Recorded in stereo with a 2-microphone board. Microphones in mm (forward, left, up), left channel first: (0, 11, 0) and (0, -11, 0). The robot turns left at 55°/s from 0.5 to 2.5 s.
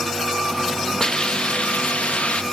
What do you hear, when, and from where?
1.0 s a hiss: 145° left, 0.7 m; by 2.4 s 70° left, 0.7 m